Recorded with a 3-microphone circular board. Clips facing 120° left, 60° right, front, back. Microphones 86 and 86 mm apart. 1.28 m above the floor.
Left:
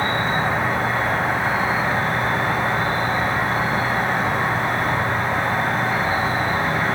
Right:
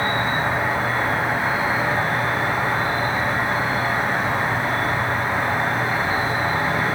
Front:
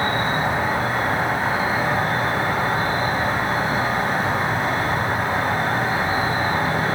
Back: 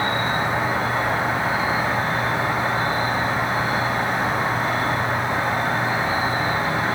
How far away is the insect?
About 1.9 m.